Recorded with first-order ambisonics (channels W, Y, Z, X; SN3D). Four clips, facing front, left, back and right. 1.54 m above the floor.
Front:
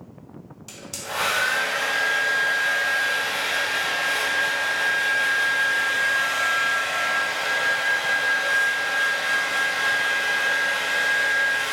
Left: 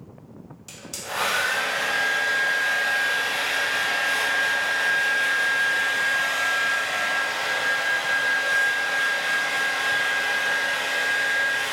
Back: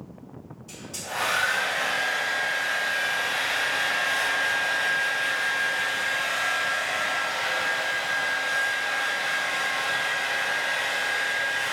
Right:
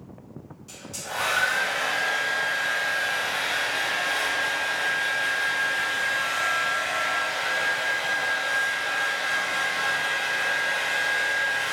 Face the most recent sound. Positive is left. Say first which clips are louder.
# left 2 dB, front 2 dB
turn(degrees=35)